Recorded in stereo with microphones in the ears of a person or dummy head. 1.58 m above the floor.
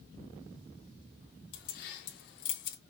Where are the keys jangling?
60° left (ahead or behind), 1.8 m; by 2.8 s 45° left (ahead or behind), 1.1 m.